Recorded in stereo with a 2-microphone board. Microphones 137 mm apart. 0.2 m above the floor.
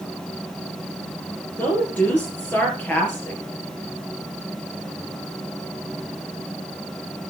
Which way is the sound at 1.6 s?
10° left (ahead or behind).